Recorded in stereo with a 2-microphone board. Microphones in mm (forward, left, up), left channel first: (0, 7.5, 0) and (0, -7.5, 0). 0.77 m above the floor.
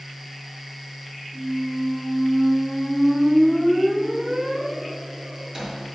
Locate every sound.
1.3 s a squeak: 45° right (ahead or behind), 2.5 m